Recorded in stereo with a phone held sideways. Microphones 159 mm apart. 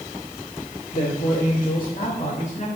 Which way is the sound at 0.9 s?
80° left.